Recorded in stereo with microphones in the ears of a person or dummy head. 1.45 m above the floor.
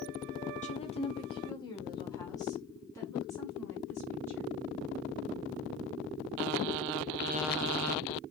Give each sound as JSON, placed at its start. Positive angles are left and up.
{"t": 0.6, "sound": "a woman speaking", "side_deg": 35, "distance_m": 0.9}